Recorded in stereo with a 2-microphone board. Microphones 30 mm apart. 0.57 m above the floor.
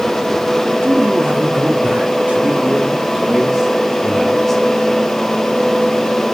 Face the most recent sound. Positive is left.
turn(degrees=10)  # may be behind; listen again after turning